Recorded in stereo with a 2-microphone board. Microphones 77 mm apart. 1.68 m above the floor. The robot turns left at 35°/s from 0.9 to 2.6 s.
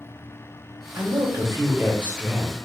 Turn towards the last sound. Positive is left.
turn(degrees=180)